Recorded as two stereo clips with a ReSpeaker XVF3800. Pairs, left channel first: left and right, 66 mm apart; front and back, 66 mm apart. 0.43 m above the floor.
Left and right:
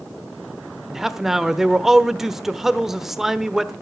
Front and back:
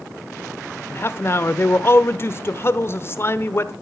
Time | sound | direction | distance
0.9 | a man speaking | 5° right | 1.0 m